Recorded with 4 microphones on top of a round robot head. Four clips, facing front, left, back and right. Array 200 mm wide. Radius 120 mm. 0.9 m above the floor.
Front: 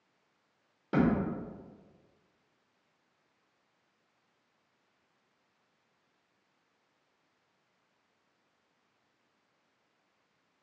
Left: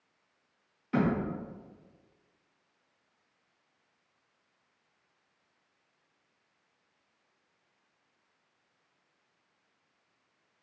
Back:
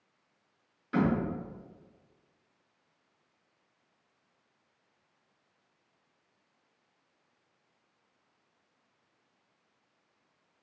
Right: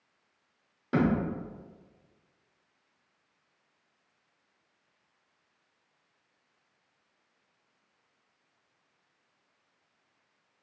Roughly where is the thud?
Ahead right.